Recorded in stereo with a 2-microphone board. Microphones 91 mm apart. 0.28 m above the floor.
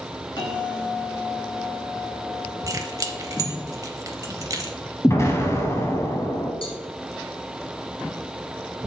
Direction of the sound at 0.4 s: 50° left (ahead or behind).